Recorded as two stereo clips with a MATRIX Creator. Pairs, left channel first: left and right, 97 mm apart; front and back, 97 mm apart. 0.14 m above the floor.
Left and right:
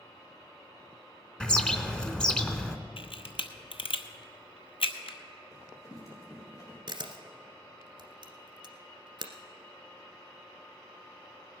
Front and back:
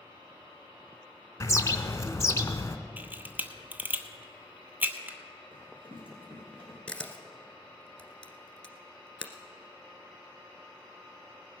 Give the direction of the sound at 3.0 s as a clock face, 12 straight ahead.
8 o'clock.